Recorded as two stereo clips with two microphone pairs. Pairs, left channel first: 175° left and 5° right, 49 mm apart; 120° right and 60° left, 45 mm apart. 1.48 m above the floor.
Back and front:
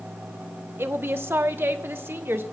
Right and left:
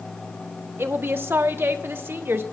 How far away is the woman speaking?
About 1.0 m.